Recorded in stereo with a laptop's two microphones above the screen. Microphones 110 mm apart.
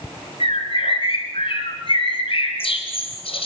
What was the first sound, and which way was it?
A bird, 55° left (ahead or behind).